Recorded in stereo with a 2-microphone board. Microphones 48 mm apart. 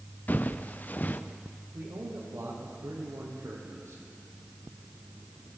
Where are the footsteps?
40° left (ahead or behind), 1.5 m.